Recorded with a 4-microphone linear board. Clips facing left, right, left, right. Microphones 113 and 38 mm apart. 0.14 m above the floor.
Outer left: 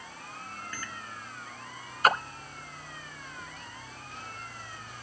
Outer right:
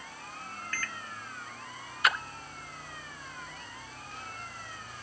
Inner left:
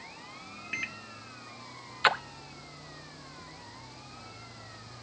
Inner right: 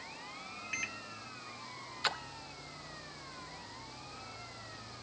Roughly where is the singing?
I don't hear singing.